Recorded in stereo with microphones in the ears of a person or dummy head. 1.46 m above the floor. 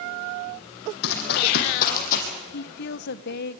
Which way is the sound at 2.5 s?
55° left (ahead or behind).